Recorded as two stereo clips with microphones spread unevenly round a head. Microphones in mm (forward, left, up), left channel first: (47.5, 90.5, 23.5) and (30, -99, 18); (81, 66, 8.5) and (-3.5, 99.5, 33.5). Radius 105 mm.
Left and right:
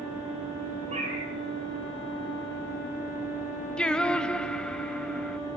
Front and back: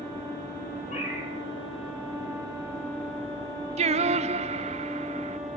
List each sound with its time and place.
0.9 s a cat meowing: 35° right, 10 m
3.8 s singing: 170° left, 0.6 m